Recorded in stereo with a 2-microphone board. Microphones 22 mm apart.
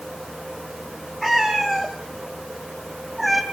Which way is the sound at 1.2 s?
5° left (ahead or behind).